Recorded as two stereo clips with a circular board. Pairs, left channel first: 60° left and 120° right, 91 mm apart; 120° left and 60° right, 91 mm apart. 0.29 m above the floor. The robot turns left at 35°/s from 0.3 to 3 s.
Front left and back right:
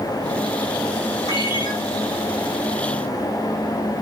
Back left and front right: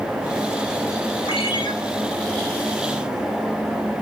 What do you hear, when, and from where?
1.3 s a ringtone: 105° left, 3 m; by 1.7 s 90° left, 3 m